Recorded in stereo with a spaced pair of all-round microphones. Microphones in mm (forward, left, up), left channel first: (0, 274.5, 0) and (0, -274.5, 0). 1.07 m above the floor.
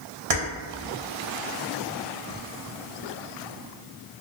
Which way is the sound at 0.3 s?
75° right (ahead or behind).